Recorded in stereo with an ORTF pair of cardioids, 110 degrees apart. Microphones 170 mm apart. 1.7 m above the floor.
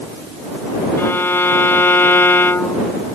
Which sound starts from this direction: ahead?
A violin, at 1.0 s.